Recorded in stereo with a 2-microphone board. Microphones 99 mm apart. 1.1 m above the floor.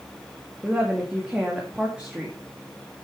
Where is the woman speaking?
10° right (ahead or behind), 2 m.